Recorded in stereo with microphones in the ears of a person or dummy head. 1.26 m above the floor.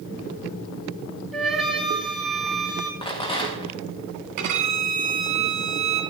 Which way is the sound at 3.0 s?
30° left (ahead or behind).